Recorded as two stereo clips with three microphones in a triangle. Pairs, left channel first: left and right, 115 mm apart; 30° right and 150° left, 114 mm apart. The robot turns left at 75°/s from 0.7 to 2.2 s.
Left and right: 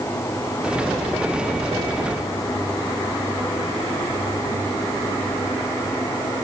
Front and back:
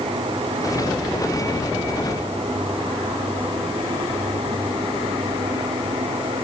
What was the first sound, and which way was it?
Only background noise.